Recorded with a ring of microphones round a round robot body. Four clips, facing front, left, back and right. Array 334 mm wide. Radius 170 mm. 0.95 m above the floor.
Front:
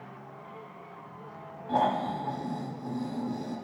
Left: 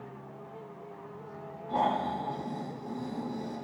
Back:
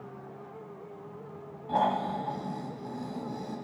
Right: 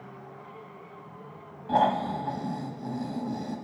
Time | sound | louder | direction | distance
1.7 | snoring | right 4 dB, front 1 dB | 85° right | 1.6 m